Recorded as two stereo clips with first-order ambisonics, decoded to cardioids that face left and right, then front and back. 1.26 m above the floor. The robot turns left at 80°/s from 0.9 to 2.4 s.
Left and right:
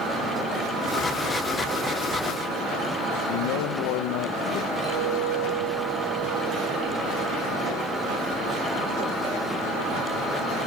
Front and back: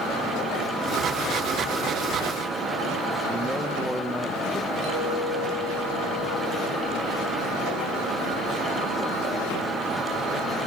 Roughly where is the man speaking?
Left.